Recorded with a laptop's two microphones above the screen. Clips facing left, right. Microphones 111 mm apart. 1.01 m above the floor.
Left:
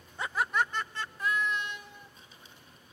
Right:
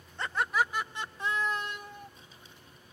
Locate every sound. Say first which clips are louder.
0.2 s laughter: even; 10° left (ahead or behind), 1.3 m; by 2.1 s 55° right (ahead or behind), 1.3 m